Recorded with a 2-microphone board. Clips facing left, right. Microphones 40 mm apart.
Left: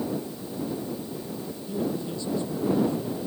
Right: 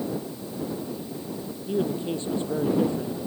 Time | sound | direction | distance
1.7 | a man speaking | 40° right (ahead or behind) | ?